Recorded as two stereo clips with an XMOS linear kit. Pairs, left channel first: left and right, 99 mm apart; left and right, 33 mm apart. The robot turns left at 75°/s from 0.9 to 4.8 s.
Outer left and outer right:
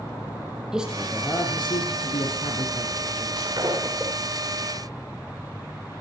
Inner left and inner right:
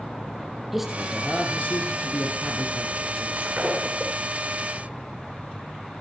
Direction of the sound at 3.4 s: 115° right.